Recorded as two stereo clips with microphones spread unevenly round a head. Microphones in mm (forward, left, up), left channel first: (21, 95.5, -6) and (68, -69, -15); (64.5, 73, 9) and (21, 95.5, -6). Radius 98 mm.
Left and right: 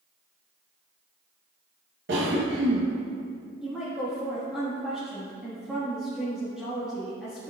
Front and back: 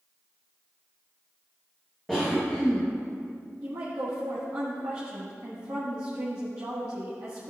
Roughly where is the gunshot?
No gunshot in this recording.